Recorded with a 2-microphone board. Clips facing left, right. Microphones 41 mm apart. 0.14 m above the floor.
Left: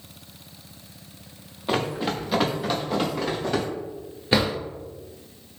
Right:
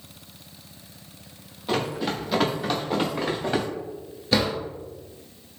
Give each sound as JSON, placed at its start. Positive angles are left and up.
{"t": 1.7, "sound": "running footsteps", "side_deg": 25, "distance_m": 1.0}
{"t": 4.3, "sound": "a drawer", "side_deg": 25, "distance_m": 1.3}